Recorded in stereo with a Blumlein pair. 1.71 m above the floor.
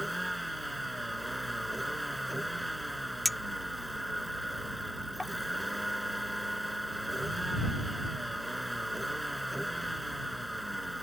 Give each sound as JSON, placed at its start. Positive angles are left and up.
{"t": 0.0, "sound": "a vehicle", "azimuth_deg": 0}
{"t": 3.2, "sound": "a clink", "azimuth_deg": 5}